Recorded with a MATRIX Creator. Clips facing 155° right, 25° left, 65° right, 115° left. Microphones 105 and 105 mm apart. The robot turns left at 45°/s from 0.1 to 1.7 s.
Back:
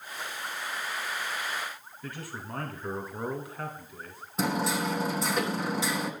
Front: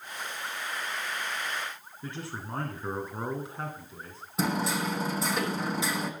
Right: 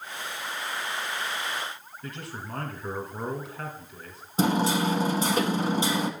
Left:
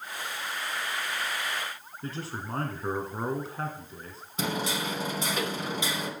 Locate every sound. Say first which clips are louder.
2.0 s a man speaking: front 2 dB, left 3 dB; 75° left, 1.7 m
4.4 s hammering: back 1 dB, right 7 dB; 65° right, 1.2 m